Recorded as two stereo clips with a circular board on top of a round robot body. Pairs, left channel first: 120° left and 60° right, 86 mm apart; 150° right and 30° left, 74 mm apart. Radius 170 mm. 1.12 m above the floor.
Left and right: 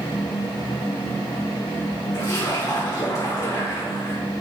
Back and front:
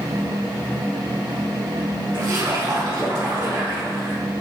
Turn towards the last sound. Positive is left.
turn(degrees=70)